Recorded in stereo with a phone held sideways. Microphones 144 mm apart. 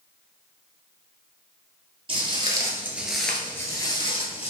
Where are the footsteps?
35° right (ahead or behind), 1.5 m; by 4.5 s 40° left (ahead or behind), 1.7 m.